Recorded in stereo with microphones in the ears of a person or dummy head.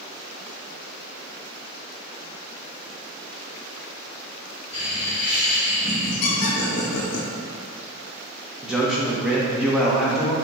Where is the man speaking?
5° right (ahead or behind), 0.8 m.